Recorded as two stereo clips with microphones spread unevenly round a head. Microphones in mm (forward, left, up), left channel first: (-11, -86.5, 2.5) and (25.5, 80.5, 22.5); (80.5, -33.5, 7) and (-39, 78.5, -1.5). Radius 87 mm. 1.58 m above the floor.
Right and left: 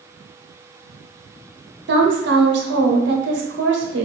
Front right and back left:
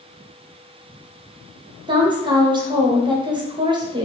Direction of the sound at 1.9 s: 75° left.